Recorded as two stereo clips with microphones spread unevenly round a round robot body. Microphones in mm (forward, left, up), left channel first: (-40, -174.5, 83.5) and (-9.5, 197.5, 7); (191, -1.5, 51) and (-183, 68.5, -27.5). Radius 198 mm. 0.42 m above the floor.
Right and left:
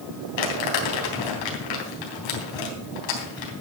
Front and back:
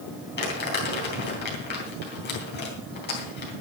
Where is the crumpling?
80° right, 4 m.